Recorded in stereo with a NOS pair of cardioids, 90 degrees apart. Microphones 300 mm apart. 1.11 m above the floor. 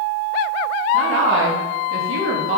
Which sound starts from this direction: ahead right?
A woman speaking, at 0.9 s.